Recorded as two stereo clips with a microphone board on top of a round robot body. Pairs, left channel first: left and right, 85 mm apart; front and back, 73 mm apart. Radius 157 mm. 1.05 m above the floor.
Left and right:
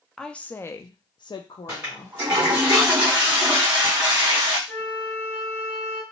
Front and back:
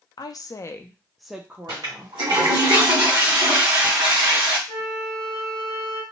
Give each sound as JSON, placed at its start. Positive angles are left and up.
{"t": 0.2, "sound": "a woman speaking", "azimuth_deg": 5, "distance_m": 0.6}
{"t": 1.7, "sound": "a toilet flushing", "azimuth_deg": -155, "distance_m": 1.5}
{"t": 4.7, "sound": "a flute", "azimuth_deg": 0, "distance_m": 0.8}